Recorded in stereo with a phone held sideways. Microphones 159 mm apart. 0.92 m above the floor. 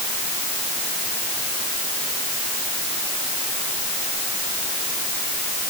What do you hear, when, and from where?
Only background noise.